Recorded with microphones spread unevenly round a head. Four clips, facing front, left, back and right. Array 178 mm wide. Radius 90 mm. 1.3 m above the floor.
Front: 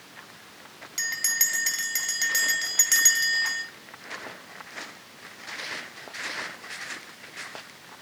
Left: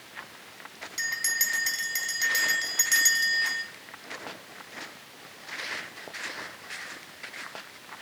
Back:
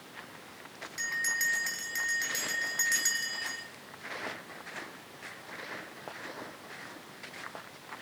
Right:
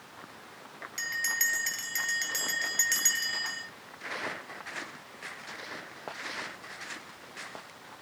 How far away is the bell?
About 2.5 m.